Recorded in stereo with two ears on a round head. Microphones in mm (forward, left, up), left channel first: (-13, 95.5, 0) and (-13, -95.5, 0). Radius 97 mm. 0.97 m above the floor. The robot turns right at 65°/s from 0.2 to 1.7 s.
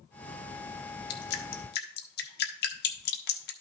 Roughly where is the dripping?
Left.